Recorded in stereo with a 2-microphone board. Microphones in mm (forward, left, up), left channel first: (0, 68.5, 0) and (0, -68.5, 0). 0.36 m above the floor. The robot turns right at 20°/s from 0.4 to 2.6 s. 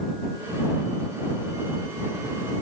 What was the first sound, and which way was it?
Only background noise.